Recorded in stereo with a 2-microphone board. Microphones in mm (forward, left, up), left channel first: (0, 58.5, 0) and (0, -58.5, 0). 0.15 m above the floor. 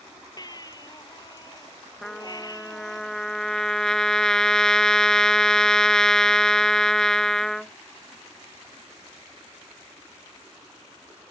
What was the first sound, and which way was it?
A baby crying, 35° left (ahead or behind).